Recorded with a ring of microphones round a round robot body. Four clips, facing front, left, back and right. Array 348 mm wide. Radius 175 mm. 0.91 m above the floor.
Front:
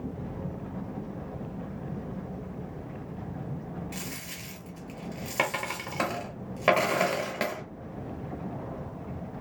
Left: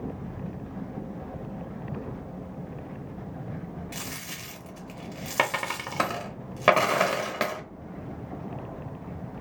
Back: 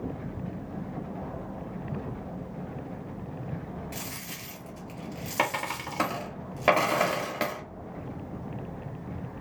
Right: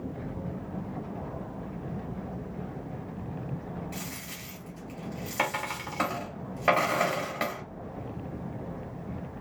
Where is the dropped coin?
85° left, 0.7 m.